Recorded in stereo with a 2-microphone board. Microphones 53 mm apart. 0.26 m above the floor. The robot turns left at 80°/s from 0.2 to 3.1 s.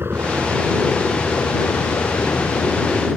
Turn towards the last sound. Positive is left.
turn(degrees=-5)  # may be behind; listen again after turning